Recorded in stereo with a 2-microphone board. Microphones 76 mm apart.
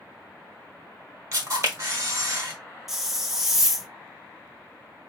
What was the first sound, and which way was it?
A camera shutter, 40° right (ahead or behind).